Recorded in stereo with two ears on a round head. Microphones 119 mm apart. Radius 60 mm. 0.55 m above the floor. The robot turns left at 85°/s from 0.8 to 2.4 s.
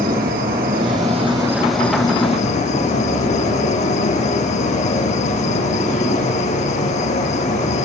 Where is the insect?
100° right, 2.5 m; by 7.8 s 125° left, 2.5 m.